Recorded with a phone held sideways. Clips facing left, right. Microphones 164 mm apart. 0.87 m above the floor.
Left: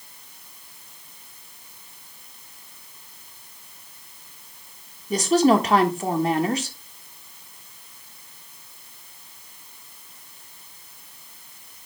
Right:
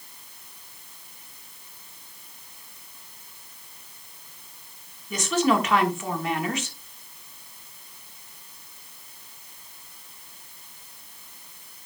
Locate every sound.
5.1 s a woman speaking: 35° left (ahead or behind), 1.3 m